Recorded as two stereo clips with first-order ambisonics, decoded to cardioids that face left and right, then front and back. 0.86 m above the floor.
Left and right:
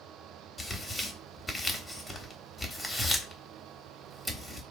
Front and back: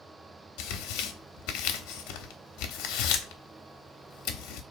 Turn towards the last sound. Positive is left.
turn(degrees=10)